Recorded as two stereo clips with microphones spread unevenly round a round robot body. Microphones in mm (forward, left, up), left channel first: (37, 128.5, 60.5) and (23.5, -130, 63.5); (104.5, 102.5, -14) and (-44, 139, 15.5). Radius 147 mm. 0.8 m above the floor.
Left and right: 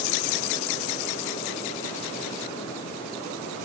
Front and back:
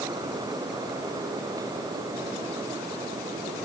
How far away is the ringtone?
I don't hear a ringtone.